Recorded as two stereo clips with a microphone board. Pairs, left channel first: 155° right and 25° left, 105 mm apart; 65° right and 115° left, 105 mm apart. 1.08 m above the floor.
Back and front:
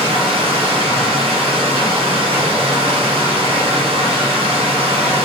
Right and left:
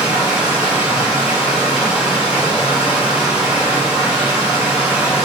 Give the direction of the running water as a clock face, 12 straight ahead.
11 o'clock.